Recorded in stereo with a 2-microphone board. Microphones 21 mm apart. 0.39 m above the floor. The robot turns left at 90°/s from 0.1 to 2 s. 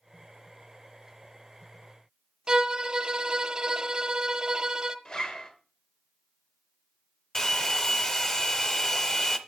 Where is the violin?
30° right (ahead or behind), 0.6 m.